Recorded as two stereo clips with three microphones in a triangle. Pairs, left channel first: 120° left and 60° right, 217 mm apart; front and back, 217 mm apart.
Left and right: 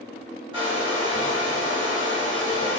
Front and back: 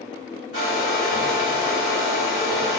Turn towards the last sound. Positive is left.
turn(degrees=5)